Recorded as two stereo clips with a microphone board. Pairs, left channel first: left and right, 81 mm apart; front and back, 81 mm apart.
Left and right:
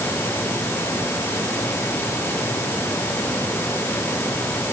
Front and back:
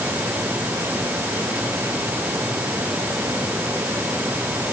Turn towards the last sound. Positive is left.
No sound to turn to.